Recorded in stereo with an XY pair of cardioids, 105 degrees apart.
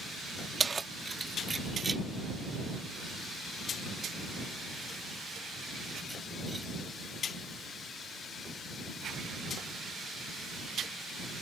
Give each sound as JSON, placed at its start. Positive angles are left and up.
{"t": 0.6, "sound": "keys jangling", "azimuth_deg": -30}